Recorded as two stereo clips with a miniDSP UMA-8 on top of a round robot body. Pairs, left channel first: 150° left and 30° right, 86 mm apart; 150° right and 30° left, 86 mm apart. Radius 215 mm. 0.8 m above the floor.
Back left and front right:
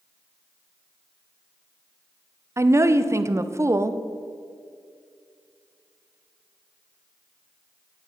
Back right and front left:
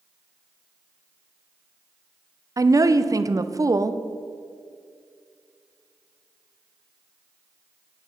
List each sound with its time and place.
2.6 s a woman speaking: 5° left, 0.7 m